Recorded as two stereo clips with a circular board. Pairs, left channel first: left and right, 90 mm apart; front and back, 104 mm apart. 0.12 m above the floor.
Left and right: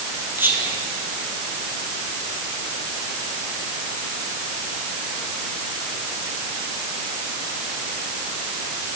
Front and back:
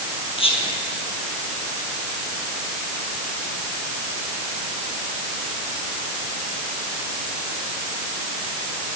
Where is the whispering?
25° right, 3 m.